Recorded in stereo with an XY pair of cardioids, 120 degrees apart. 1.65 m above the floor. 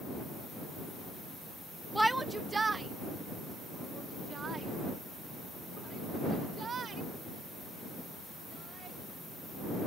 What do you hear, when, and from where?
1.9 s a shout: straight ahead; by 9.0 s 40° right